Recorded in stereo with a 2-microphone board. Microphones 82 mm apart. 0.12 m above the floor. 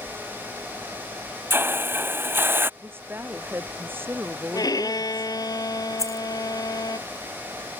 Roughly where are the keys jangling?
Left.